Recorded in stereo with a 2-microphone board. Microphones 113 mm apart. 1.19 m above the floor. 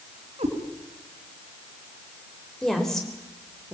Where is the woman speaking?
5° left (ahead or behind), 4 m.